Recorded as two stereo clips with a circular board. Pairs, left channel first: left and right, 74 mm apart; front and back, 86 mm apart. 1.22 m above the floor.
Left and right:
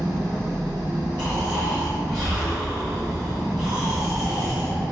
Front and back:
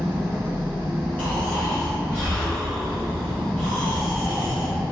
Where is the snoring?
70° right, 1.4 m.